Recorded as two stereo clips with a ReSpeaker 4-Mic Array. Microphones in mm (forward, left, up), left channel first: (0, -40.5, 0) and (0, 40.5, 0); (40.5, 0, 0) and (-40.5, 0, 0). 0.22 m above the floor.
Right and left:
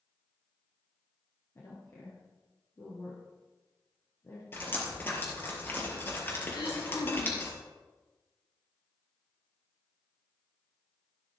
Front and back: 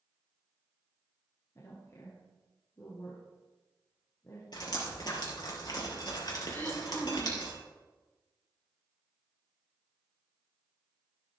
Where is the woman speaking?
45° right, 3 m.